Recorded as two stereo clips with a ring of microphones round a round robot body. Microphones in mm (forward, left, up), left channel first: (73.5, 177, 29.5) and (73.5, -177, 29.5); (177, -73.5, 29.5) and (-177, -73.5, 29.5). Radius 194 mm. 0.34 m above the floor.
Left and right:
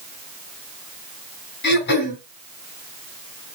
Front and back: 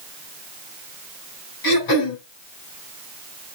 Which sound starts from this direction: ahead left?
Throat clearing, at 1.6 s.